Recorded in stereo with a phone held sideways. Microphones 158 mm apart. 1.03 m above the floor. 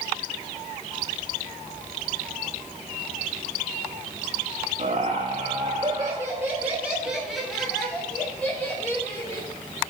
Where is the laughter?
50° right (ahead or behind), 1.4 m; by 9.5 s 15° left (ahead or behind), 3 m.